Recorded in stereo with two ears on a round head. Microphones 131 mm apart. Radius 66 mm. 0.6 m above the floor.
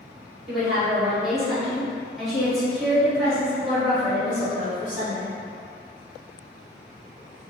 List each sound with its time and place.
0.5 s a woman speaking: 5° right (ahead or behind), 1.7 m; by 5.4 s 5° left (ahead or behind), 1.7 m